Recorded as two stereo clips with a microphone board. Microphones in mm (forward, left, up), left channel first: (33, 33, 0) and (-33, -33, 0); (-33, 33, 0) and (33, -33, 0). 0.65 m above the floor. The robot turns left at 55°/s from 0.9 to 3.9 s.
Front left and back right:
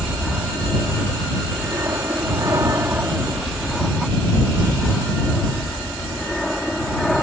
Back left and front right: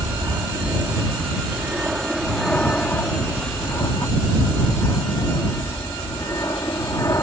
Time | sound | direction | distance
0.0 | an aircraft | 60° right | ?